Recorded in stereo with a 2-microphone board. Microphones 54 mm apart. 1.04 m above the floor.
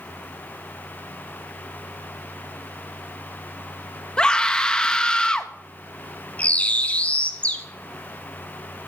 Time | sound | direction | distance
4.2 | a scream | 15° left (ahead or behind) | 1.5 m
6.4 | a bird | 25° left (ahead or behind) | 1.4 m